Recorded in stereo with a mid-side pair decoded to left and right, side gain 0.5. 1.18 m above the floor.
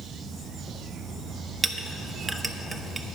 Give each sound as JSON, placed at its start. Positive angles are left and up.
{"t": 1.6, "sound": "a clink", "azimuth_deg": -15, "distance_m": 0.8}